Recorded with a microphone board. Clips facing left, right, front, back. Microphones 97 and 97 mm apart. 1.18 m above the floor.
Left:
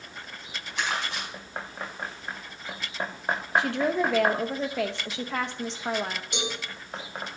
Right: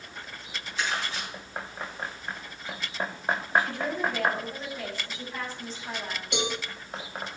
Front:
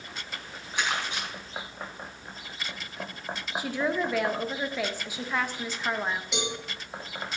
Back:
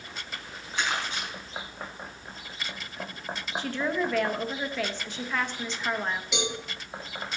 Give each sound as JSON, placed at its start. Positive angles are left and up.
{"t": 0.8, "sound": "crumpling", "azimuth_deg": 75, "distance_m": 5.0}
{"t": 3.6, "sound": "a woman speaking", "azimuth_deg": 80, "distance_m": 0.8}
{"t": 6.3, "sound": "a cowbell", "azimuth_deg": -90, "distance_m": 2.5}